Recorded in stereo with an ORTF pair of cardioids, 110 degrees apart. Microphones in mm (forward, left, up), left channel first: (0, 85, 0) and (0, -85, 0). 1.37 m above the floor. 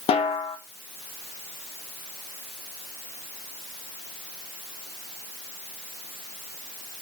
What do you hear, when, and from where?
0.1 s a snare drum: 35° left, 1.1 m